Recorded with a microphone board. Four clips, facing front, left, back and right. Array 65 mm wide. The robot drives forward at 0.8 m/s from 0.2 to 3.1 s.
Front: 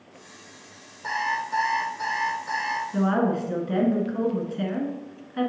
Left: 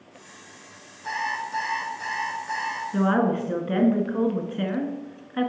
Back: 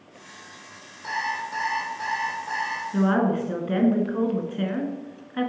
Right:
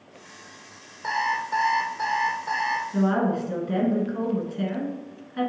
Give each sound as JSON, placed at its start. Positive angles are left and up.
{"t": 1.0, "sound": "an alarm clock", "azimuth_deg": -75, "distance_m": 2.5}
{"t": 2.9, "sound": "a woman speaking", "azimuth_deg": 110, "distance_m": 1.2}